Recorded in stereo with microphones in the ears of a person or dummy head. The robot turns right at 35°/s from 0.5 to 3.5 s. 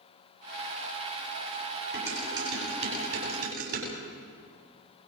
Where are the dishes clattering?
5° right (ahead or behind), 8.5 m; by 3.9 s 60° right (ahead or behind), 8.5 m.